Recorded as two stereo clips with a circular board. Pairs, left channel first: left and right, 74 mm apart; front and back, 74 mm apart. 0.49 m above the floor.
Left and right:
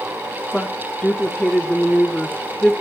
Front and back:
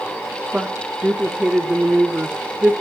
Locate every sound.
0.5 s a woman speaking: 145° left, 1.2 m